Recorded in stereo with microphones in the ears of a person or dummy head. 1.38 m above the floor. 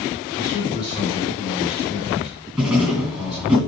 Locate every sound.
0.3 s a man speaking: 25° left (ahead or behind), 4 m
2.6 s writing: centre (ahead or behind), 3 m